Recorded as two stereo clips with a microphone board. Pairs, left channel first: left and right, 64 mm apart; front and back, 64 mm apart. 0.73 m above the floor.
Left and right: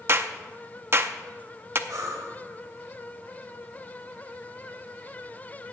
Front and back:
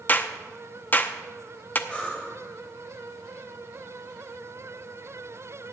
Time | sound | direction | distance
0.1 | a clap | 50° right | 0.6 m
1.9 | breathing | 65° right | 2 m